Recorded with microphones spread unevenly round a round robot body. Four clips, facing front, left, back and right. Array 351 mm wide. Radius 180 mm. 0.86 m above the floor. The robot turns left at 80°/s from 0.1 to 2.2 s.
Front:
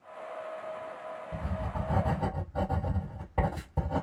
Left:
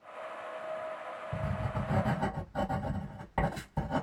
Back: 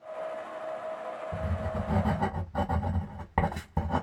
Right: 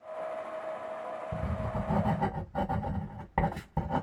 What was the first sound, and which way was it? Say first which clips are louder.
Writing: left 1 dB, back 1 dB; 90° right.